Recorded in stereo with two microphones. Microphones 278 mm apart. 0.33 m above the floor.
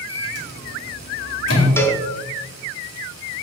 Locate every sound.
0.1 s a microwave: 60° left (ahead or behind), 2.0 m
1.8 s a cowbell: 10° left (ahead or behind), 0.7 m